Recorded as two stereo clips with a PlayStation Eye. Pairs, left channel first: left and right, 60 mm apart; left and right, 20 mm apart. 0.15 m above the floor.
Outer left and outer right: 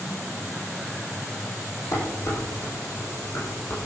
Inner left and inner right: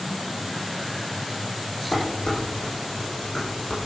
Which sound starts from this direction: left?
Dishes clattering, at 1.9 s.